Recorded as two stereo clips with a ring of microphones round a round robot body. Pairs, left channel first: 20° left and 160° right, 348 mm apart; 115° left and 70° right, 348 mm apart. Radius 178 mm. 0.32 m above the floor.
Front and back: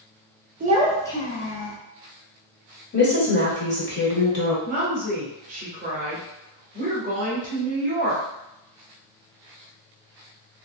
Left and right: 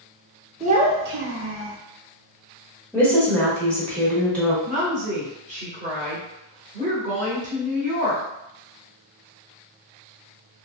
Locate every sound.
0.6 s a child speaking: 125° right, 0.6 m; by 1.8 s 15° right, 0.9 m
2.9 s a woman speaking: 30° left, 1.2 m
4.7 s a woman speaking: 115° right, 1.2 m